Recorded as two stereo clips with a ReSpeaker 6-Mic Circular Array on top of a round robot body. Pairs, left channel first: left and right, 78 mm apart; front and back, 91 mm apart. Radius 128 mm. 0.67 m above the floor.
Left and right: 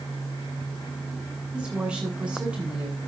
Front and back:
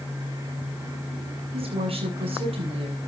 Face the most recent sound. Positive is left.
turn(degrees=-165)